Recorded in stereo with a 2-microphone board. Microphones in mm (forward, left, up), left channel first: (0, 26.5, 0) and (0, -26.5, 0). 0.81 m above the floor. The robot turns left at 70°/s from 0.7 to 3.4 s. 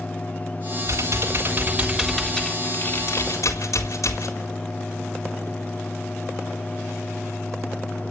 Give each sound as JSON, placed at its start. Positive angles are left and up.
{"t": 0.9, "sound": "typing on a keyboard", "azimuth_deg": -100, "distance_m": 4.0}